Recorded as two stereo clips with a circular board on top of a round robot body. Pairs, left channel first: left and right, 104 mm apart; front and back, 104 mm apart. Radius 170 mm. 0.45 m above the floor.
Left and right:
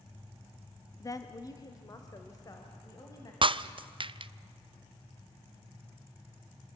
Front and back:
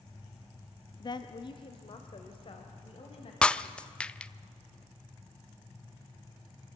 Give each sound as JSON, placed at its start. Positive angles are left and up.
{"t": 1.0, "sound": "a woman speaking", "azimuth_deg": 40, "distance_m": 1.1}
{"t": 3.4, "sound": "breaking glass", "azimuth_deg": -80, "distance_m": 0.7}